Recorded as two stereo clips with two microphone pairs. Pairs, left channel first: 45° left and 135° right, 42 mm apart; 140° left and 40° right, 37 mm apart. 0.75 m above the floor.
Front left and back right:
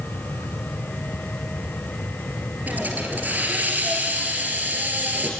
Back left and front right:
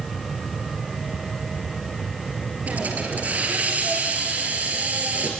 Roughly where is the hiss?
Right.